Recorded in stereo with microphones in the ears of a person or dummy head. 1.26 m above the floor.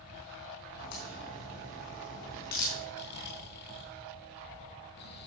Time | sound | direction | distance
0.8 | a crack | 50° left (ahead or behind) | 3.5 m
2.9 | snoring | 55° left (ahead or behind) | 1.7 m